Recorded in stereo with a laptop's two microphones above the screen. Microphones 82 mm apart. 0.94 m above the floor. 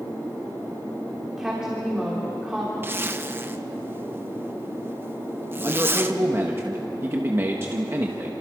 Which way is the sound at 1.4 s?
10° right (ahead or behind).